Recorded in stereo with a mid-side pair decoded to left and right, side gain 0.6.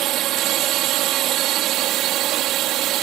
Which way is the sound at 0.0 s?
65° right.